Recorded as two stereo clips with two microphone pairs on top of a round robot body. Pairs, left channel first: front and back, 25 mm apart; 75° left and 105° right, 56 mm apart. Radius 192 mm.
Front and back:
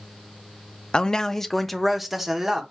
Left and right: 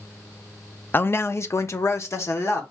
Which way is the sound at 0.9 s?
40° left.